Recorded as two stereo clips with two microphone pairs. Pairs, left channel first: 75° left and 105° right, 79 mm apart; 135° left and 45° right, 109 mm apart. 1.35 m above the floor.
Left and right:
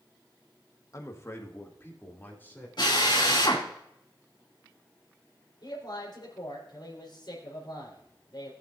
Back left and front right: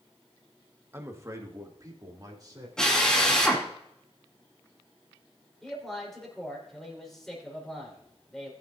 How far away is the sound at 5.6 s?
About 4 m.